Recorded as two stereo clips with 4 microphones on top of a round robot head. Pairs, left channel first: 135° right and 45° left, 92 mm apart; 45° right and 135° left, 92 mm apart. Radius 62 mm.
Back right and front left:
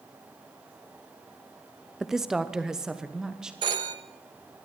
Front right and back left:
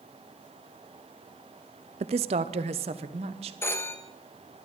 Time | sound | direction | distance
2.0 | a woman speaking | 130° left | 0.7 m
3.6 | a phone ringing | 15° left | 1.3 m